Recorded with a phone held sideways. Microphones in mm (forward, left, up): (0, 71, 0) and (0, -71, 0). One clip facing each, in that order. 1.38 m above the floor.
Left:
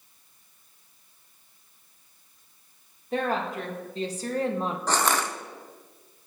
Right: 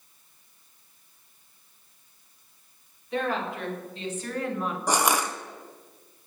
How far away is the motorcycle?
I don't hear a motorcycle.